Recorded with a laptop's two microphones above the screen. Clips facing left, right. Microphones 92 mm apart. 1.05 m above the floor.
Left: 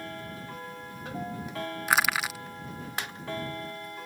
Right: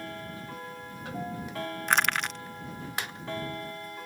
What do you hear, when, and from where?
1.9 s crushing: 5° left (ahead or behind)